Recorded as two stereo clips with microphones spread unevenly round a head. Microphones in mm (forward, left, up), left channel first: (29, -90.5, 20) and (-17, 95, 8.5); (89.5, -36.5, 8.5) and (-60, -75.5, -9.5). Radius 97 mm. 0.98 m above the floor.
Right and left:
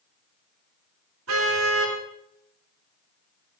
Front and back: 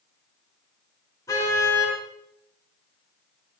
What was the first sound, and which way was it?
A car horn, 90° left.